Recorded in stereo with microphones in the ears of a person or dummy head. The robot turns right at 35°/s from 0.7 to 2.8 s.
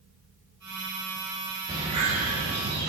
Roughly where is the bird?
Behind right.